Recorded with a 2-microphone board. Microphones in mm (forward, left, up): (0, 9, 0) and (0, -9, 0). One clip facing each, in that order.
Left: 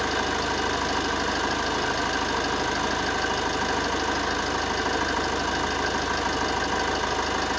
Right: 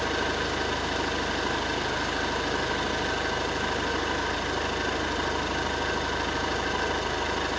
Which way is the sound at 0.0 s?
70° left (ahead or behind).